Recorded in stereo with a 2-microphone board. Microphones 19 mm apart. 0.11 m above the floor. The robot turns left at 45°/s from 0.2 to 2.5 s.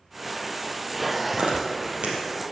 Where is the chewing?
55° right (ahead or behind), 4 m; by 2.2 s 60° right (ahead or behind), 4 m.